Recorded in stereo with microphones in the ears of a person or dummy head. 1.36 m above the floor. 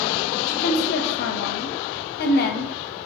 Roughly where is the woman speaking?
Left.